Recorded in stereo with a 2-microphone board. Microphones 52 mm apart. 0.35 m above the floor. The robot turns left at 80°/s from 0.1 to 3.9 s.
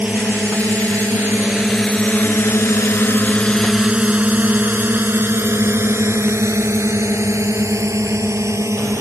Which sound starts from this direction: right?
A drone, at 0.0 s.